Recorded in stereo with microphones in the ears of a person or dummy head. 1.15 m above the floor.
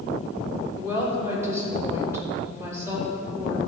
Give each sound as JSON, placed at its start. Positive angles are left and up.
{"t": 0.8, "sound": "a woman speaking", "side_deg": -15, "distance_m": 3.5}